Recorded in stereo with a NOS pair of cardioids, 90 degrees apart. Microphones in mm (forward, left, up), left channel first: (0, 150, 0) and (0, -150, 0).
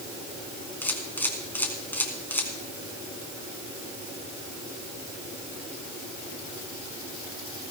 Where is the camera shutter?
5° left, 3 m.